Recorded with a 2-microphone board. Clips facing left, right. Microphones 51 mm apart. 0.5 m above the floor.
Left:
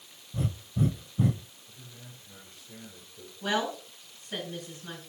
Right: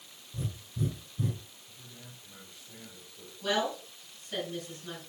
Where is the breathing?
75° left (ahead or behind), 0.9 m.